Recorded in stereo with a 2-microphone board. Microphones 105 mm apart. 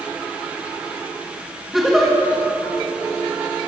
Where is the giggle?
Centre (ahead or behind), 2.5 m.